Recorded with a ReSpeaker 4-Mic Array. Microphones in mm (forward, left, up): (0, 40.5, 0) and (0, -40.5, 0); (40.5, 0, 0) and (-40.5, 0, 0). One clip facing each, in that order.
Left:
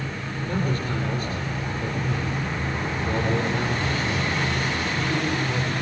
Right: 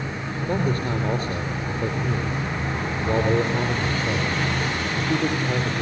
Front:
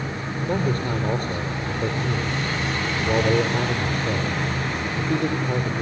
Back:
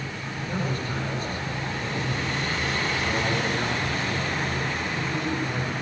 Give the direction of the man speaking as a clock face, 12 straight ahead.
1 o'clock.